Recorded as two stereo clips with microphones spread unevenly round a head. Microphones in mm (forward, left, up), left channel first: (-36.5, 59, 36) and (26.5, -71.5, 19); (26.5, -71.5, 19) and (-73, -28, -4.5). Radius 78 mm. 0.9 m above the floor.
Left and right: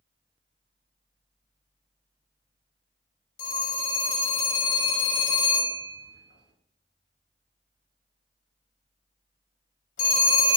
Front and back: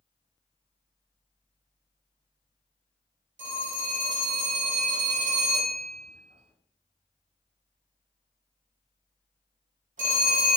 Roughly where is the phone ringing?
Behind left.